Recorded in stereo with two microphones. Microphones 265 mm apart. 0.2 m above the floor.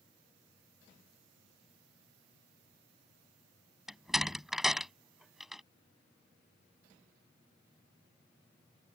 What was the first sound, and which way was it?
A door slam, centre (ahead or behind).